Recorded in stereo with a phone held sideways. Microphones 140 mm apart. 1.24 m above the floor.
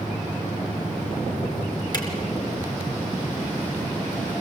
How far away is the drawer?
About 4 m.